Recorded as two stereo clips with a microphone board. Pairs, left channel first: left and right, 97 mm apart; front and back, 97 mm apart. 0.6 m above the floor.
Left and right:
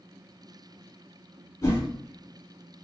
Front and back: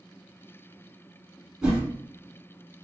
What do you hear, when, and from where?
1.6 s a whoosh: 105° left, 1.4 m